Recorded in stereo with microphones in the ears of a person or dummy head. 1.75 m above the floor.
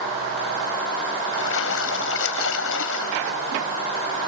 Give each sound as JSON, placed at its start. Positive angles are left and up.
{"t": 1.3, "sound": "a splash", "side_deg": 85}